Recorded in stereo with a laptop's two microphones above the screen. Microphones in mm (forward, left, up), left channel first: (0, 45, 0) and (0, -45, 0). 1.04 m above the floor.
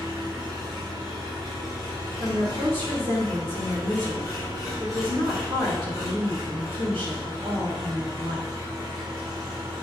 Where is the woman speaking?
70° right (ahead or behind), 3 m.